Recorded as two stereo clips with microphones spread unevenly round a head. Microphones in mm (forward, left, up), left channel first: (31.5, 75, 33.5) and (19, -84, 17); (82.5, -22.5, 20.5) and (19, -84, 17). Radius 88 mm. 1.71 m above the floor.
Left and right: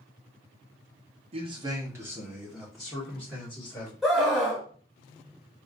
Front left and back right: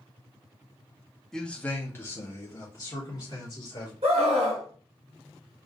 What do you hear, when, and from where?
1.3 s a man speaking: 40° right, 0.7 m; by 3.9 s 5° left, 2.0 m
4.0 s a scream: straight behind, 1.4 m